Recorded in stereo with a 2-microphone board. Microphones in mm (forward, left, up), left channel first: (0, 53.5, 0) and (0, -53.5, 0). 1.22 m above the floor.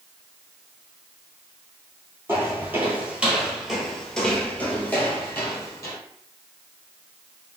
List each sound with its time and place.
2.3 s footsteps: 20° right (ahead or behind), 1.4 m; by 6.0 s 25° left (ahead or behind), 1.6 m